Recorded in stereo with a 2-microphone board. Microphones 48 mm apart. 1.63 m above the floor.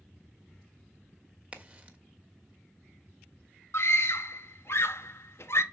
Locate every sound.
1.5 s a crack: 25° right (ahead or behind), 1.3 m
3.7 s a scream: 60° left (ahead or behind), 1.0 m